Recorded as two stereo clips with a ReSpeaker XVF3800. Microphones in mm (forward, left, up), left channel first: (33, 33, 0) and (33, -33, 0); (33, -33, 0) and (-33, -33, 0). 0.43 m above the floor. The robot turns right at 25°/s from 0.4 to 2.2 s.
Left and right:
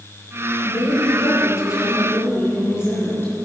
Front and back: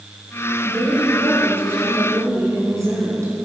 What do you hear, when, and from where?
0.6 s a woman speaking: 100° left, 5 m; by 3.3 s 140° left, 5 m